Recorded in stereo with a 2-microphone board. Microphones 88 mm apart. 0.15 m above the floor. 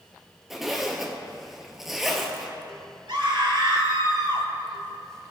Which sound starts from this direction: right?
A scream, at 3.1 s.